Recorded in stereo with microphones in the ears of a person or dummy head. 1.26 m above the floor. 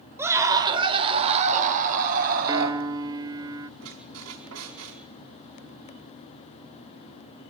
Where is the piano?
20° right (ahead or behind), 0.7 m.